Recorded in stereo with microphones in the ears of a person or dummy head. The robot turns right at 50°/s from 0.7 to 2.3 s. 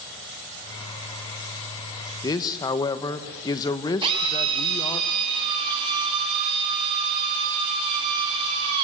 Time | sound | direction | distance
2.2 | a man speaking | 20° left (ahead or behind) | 1.3 m
4.0 | a drill | 30° right (ahead or behind) | 7 m